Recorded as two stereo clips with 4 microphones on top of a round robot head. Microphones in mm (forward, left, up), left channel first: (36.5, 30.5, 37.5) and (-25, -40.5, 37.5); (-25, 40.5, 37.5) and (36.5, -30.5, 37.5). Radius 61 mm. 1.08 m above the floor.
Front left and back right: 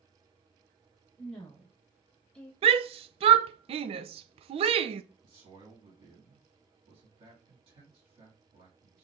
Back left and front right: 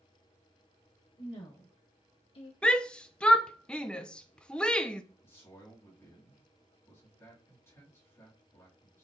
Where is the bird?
I don't hear a bird.